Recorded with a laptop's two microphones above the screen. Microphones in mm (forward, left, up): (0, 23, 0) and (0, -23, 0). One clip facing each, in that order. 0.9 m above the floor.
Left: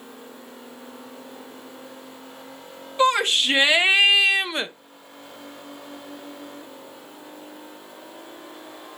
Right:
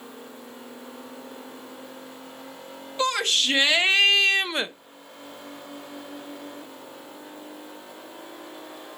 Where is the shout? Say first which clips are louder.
Left 5 dB; 20° left (ahead or behind), 1.4 m; by 4.7 s 5° right (ahead or behind), 0.6 m.